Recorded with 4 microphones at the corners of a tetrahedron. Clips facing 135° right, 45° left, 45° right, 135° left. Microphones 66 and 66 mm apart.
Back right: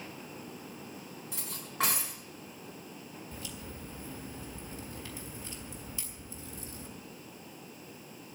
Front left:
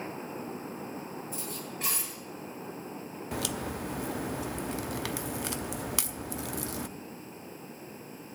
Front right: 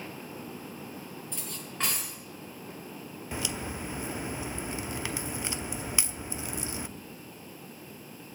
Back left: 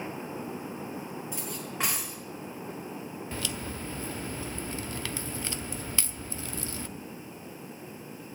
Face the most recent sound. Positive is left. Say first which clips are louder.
# front left 14 dB, front right 3 dB
turn(degrees=30)